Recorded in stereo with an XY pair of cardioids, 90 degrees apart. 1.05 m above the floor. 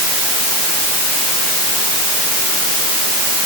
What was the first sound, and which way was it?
Only background noise.